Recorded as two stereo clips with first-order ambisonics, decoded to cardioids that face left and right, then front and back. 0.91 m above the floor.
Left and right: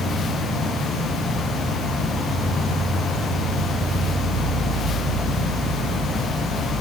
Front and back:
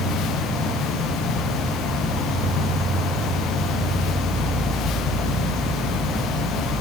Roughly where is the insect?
Ahead.